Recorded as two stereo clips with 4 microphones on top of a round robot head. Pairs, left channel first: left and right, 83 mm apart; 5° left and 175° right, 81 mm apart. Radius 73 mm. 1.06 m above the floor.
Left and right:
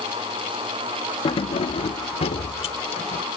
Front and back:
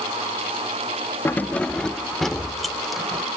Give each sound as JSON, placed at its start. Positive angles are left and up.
{"t": 1.2, "sound": "keys jangling", "azimuth_deg": 65}